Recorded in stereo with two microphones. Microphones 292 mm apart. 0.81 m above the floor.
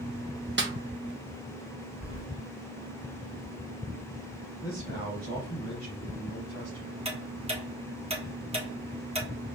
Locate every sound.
0.6 s a snare drum: 40° right (ahead or behind), 0.8 m
2.0 s keys jangling: 30° right (ahead or behind), 1.1 m
4.6 s a man speaking: 35° left (ahead or behind), 3.5 m
7.0 s ticking: 20° right (ahead or behind), 1.2 m